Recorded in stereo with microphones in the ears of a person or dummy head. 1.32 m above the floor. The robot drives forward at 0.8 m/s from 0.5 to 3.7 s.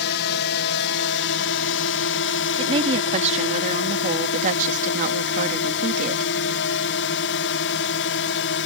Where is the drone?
55° left (ahead or behind); by 8.7 s 60° left (ahead or behind).